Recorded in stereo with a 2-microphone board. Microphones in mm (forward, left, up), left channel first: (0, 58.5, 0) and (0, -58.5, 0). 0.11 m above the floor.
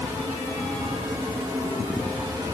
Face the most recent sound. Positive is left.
No sound to turn to.